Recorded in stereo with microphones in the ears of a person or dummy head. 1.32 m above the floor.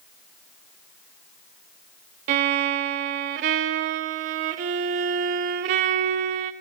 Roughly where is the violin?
Right.